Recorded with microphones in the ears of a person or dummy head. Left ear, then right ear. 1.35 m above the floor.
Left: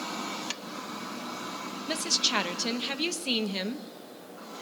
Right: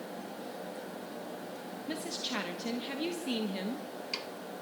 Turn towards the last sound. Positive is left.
turn(degrees=45)  # may be behind; listen again after turning